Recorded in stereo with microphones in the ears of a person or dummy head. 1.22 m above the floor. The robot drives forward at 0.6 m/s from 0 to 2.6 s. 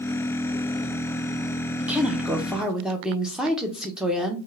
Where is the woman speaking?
15° right (ahead or behind), 0.6 m; by 4.4 s 5° right (ahead or behind), 1.0 m.